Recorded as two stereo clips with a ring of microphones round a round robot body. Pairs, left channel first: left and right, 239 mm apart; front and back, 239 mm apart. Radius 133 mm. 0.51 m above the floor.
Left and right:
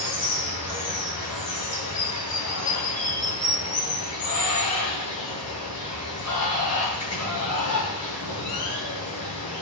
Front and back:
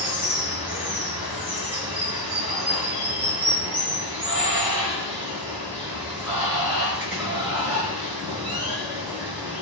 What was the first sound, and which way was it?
Running water, 100° left.